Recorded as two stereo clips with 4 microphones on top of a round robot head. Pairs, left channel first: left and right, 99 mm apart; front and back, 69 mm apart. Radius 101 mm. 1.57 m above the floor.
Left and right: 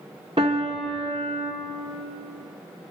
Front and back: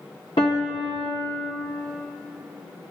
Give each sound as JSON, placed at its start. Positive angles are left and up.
{"t": 0.4, "sound": "a piano", "azimuth_deg": -35, "distance_m": 0.7}